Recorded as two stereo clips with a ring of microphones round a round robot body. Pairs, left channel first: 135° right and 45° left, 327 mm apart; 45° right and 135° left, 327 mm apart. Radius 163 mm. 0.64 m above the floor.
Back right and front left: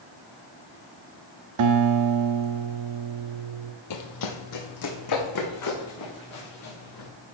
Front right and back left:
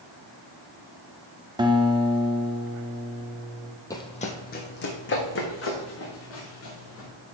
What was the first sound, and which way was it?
A guitar, 60° left.